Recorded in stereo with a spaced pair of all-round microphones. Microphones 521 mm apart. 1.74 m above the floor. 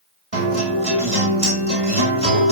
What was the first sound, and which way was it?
A guitar, 80° right.